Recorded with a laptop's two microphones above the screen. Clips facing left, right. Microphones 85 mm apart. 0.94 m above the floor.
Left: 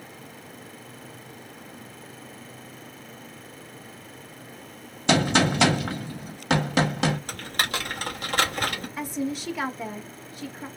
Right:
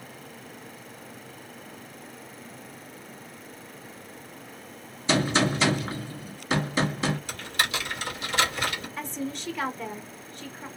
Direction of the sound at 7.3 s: 45° left (ahead or behind).